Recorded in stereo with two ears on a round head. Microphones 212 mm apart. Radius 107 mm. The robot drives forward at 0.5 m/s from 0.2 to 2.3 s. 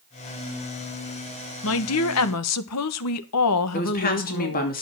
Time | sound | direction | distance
1.6 | a woman speaking | 60° left (ahead or behind) | 1.2 m
3.7 | a woman speaking | 40° left (ahead or behind) | 2.5 m